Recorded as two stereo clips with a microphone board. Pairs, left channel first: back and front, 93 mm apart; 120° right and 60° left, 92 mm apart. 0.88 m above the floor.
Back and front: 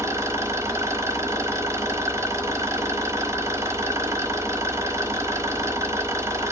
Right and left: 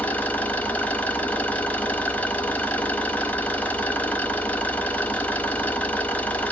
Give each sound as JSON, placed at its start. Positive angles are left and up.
{"t": 0.0, "sound": "an engine running", "azimuth_deg": -50, "distance_m": 1.0}